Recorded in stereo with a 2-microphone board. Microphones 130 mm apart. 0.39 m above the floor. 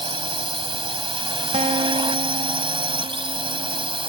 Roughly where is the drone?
Right.